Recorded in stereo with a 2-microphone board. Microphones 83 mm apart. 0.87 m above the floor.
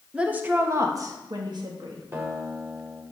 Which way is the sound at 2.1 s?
30° right (ahead or behind).